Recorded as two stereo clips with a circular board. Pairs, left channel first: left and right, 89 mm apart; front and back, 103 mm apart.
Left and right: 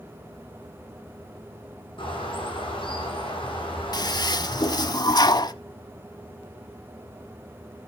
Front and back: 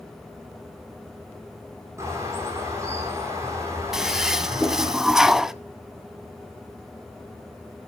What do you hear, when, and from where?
2.0 s a bird: 115° left, 6 m
3.9 s a toilet flushing: 95° left, 0.6 m